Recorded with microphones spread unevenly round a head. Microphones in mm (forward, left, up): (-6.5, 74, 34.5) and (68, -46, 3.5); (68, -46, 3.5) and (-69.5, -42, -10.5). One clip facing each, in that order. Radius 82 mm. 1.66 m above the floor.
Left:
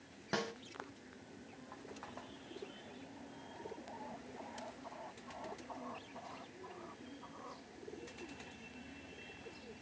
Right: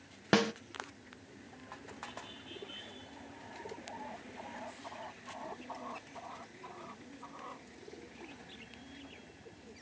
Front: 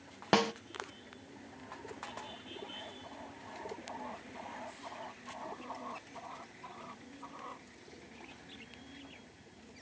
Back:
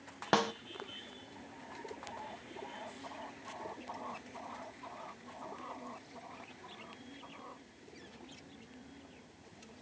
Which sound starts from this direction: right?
A snare drum, at 0.3 s.